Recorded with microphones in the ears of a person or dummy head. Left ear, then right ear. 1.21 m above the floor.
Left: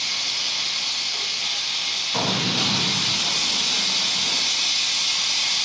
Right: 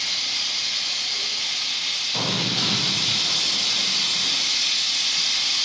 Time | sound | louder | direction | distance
0.0 | running water | even | 40° right (ahead or behind) | 1.6 m
2.1 | an explosion | left 2 dB | 35° left (ahead or behind) | 1.4 m